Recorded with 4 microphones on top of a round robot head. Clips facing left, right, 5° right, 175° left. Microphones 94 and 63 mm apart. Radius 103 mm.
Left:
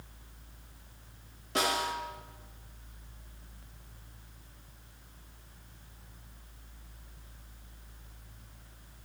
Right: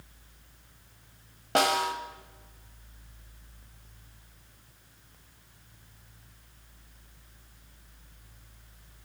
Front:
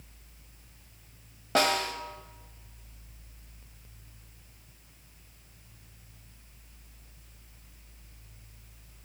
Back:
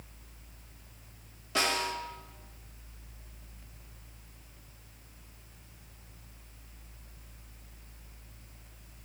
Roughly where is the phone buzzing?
No phone buzzing in this recording.